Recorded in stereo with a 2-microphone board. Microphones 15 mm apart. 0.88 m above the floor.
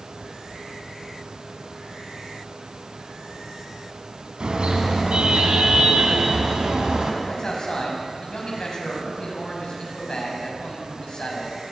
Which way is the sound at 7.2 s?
45° left (ahead or behind).